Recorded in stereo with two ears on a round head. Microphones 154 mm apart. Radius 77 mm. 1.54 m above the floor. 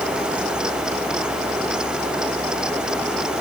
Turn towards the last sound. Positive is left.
No sound to turn to.